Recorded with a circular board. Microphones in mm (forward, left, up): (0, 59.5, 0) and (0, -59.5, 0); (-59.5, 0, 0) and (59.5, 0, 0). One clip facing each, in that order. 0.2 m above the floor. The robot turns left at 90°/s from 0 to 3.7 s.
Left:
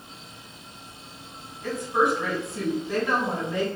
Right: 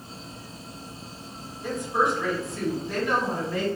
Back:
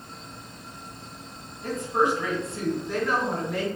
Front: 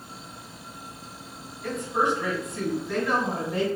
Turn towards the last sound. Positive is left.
turn(degrees=30)